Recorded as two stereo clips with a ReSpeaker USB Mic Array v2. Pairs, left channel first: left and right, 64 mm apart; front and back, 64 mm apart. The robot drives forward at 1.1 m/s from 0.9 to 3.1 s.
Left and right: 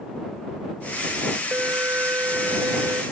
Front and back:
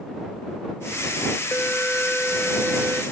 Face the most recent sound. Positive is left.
turn(degrees=-110)